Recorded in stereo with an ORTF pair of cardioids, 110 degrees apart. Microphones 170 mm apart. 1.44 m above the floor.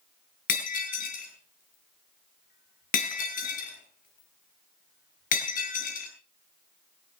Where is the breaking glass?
55° left, 6.5 m.